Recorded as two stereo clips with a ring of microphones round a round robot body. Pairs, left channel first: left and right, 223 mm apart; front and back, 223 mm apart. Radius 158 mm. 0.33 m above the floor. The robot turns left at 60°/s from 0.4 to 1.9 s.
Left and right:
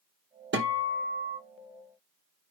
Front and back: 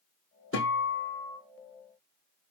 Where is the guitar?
50° right, 3 m; by 1.4 s 105° right, 3 m.